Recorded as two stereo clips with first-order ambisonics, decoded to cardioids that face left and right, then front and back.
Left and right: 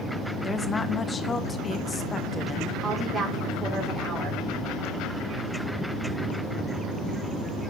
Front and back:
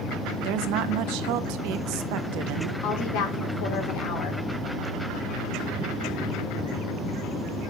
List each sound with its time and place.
0.4 s a woman speaking: 165° left, 1.2 m
2.8 s a woman speaking: 15° right, 3.5 m